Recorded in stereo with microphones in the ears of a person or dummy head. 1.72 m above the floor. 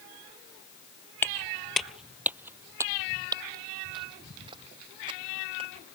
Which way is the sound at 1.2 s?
10° left (ahead or behind).